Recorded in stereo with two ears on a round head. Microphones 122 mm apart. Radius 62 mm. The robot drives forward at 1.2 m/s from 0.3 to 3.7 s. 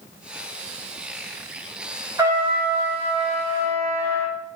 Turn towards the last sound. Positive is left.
turn(degrees=-20)  # may be behind; listen again after turning